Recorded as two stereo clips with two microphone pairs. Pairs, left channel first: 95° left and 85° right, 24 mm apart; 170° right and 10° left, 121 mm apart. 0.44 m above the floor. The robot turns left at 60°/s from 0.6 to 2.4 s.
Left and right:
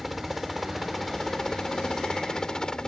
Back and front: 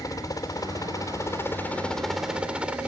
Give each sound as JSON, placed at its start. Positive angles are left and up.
{"t": 0.0, "sound": "a helicopter", "azimuth_deg": -165}